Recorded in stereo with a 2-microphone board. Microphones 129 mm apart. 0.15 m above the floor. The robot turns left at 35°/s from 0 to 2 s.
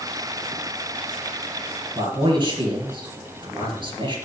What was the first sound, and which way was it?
A man speaking, 40° right (ahead or behind).